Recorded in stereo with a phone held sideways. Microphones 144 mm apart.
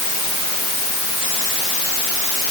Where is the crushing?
No crushing in this recording.